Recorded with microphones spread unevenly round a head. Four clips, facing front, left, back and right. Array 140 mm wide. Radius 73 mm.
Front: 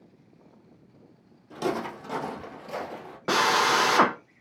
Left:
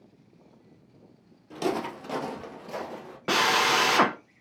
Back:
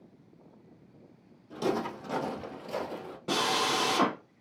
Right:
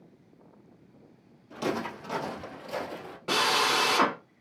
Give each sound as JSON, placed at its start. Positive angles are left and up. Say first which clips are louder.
{"t": 1.5, "sound": "footsteps", "louder": "left 2 dB, front 1 dB", "azimuth_deg": 55, "distance_m": 1.5}
{"t": 3.3, "sound": "a drill", "louder": "left 3 dB, front 7 dB", "azimuth_deg": 15, "distance_m": 0.5}